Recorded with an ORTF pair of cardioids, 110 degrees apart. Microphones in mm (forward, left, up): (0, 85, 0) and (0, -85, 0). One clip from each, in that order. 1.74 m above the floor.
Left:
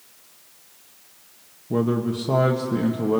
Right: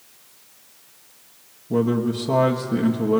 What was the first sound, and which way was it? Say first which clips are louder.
A man speaking: right 2 dB; 5° left.